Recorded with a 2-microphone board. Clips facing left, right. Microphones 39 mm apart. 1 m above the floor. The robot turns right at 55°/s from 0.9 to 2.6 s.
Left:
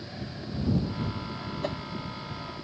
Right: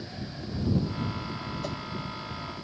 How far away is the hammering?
I don't hear hammering.